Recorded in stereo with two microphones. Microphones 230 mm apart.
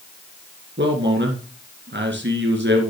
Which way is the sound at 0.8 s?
55° right (ahead or behind).